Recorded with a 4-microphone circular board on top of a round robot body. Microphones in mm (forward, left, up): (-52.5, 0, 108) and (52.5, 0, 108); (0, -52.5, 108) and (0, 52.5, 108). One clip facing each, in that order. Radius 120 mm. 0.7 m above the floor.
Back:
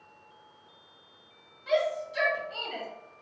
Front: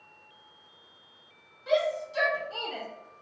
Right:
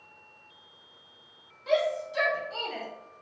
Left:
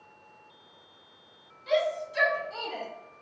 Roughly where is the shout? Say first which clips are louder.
Front 1 dB, right 1 dB; ahead right.